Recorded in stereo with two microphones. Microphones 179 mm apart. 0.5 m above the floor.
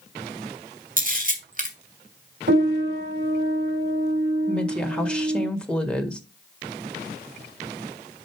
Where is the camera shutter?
50° right (ahead or behind), 2 m.